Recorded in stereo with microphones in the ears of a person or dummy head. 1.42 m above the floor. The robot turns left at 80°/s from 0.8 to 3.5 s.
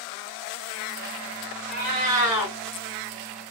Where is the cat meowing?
120° right, 1.7 m; by 2.5 s 170° left, 1.7 m.